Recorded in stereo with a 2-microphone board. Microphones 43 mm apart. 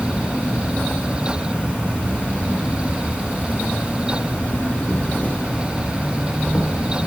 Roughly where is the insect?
Left.